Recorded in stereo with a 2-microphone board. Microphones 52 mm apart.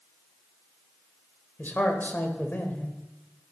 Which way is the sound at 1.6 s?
40° left (ahead or behind).